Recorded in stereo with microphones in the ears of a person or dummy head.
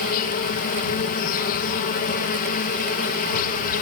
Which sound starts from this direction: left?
An insect, at 0.0 s.